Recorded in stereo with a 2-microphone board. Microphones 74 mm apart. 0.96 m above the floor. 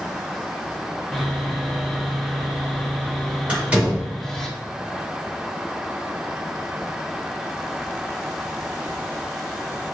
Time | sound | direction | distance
1.1 | sawing | 5° left (ahead or behind) | 0.9 m
3.5 | a door slam | 15° right (ahead or behind) | 2 m